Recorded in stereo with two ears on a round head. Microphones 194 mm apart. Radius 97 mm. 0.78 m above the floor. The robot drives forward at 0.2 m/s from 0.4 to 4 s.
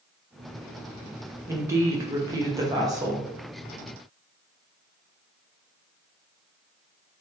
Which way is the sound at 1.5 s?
15° right (ahead or behind).